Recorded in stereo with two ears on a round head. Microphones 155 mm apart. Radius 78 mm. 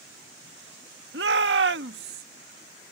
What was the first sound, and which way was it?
A shout, 70° right (ahead or behind).